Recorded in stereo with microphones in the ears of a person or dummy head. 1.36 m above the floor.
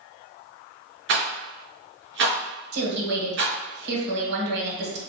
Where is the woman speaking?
65° right (ahead or behind), 1.1 m.